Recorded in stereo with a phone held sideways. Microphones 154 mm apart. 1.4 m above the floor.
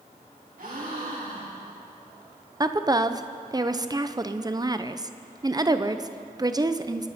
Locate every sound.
0.6 s a gasp: 65° right (ahead or behind), 6 m
2.6 s a woman speaking: 25° right (ahead or behind), 0.7 m